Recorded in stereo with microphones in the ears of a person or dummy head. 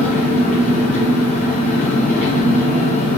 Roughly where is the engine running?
Centre.